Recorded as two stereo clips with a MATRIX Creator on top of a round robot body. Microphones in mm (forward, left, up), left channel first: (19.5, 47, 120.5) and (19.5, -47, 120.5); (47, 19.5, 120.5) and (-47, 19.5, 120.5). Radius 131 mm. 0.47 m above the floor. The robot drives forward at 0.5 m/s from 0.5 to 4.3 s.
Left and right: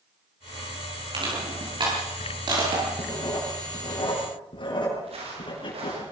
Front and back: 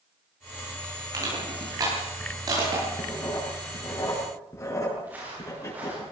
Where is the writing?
55° left, 6.5 m; by 6.0 s 60° left, 6 m.